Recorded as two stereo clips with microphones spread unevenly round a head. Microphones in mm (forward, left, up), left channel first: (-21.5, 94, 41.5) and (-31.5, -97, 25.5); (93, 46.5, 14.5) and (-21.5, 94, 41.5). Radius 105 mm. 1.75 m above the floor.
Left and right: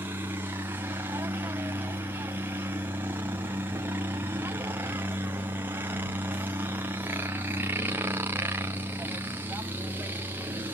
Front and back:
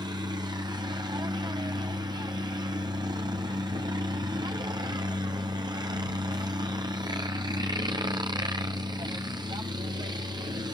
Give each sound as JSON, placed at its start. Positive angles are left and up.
{"t": 0.0, "sound": "a helicopter", "azimuth_deg": -155}